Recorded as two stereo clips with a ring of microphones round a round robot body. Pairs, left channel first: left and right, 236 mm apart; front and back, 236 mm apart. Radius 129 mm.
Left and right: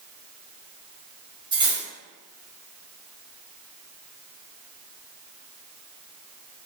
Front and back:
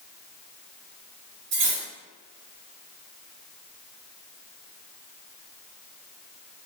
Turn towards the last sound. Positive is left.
turn(degrees=-165)